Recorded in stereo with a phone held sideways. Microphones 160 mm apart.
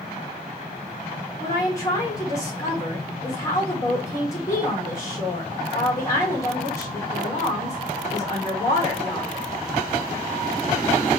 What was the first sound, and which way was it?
A woman speaking, 20° left (ahead or behind).